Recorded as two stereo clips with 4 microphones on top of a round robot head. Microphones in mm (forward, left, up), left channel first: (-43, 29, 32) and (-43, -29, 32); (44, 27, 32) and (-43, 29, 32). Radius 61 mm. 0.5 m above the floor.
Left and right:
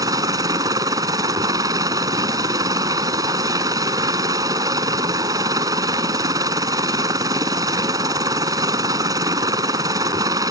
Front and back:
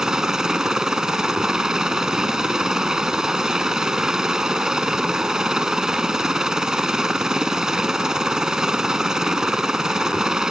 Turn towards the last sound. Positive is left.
turn(degrees=-95)